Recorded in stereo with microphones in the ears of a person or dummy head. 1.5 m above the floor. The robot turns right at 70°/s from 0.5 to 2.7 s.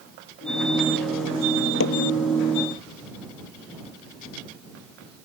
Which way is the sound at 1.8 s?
60° left (ahead or behind).